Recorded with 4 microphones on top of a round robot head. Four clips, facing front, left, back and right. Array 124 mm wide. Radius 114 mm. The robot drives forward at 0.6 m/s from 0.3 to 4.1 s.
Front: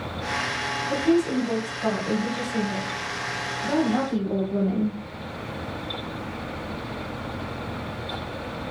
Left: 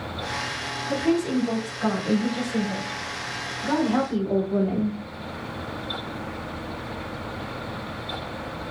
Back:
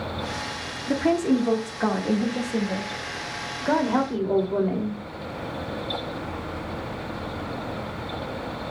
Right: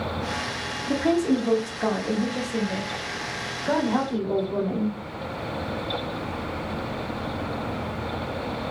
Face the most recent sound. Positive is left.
turn(degrees=-165)